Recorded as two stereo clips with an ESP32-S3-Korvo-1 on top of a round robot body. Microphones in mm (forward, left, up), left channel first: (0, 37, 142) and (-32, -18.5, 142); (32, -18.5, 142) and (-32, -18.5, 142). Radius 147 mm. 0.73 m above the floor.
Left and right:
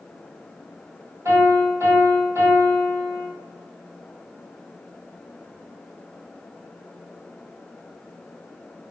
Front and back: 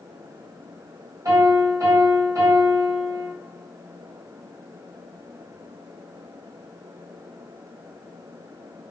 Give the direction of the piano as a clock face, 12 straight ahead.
5 o'clock.